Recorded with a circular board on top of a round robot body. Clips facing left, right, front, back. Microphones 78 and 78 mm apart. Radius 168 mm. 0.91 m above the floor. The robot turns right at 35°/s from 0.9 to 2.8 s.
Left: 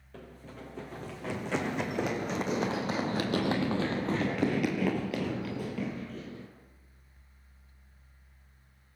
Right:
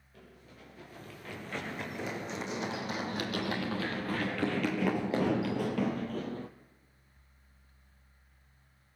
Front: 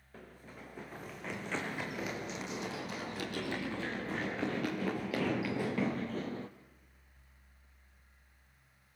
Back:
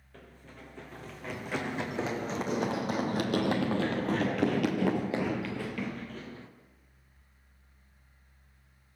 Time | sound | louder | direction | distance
0.1 | running footsteps | left 8 dB, even | 80° left | 4.5 m